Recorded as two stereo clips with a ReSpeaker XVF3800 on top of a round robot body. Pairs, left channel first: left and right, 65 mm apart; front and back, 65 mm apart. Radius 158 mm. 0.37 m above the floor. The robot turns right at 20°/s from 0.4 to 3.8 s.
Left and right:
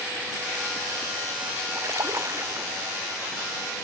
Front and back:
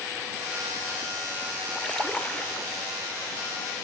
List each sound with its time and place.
1.8 s a splash: 75° right; by 2.7 s 60° right